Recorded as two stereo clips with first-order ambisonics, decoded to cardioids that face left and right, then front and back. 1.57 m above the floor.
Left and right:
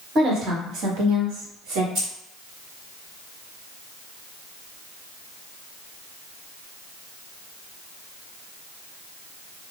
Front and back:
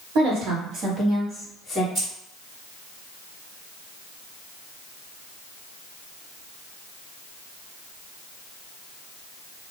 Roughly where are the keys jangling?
Behind right.